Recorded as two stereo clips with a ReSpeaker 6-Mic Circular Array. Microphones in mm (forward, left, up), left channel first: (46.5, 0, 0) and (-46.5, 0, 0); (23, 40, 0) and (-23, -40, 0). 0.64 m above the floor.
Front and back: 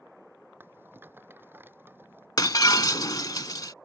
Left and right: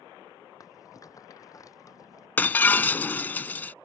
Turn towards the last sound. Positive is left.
turn(degrees=0)